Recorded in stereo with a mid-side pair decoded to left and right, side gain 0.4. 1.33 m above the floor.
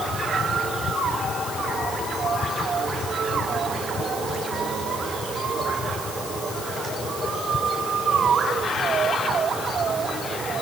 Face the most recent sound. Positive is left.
No sound to turn to.